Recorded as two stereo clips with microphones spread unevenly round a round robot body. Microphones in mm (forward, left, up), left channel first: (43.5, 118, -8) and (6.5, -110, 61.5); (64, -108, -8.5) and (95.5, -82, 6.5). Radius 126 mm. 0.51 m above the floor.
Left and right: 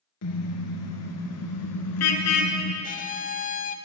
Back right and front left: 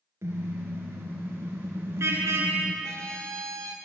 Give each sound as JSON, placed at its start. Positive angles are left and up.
{"t": 0.2, "sound": "a car horn", "azimuth_deg": 80, "distance_m": 4.5}
{"t": 2.8, "sound": "a violin", "azimuth_deg": 85, "distance_m": 1.0}